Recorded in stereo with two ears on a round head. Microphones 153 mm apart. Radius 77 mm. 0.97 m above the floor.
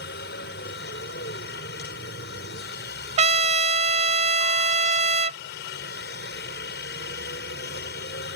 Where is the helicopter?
60° left (ahead or behind).